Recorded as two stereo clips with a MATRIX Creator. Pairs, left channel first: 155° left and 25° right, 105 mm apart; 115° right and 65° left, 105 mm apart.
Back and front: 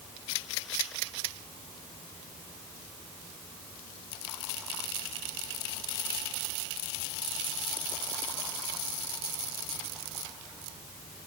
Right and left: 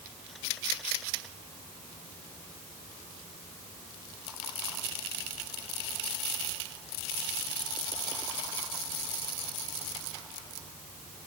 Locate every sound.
Only background noise.